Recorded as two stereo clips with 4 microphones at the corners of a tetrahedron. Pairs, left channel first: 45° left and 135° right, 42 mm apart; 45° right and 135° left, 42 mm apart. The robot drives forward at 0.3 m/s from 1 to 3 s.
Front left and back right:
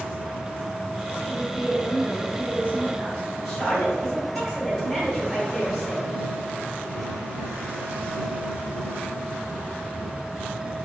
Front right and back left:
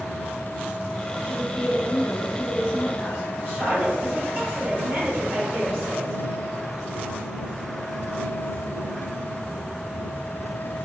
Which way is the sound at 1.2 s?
170° left.